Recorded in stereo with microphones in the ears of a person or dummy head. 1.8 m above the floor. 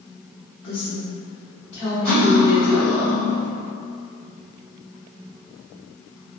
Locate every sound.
0.6 s a woman speaking: 35° left (ahead or behind), 0.8 m; by 3.0 s 45° right (ahead or behind), 1.0 m
2.0 s cutlery clinking: 20° right (ahead or behind), 1.7 m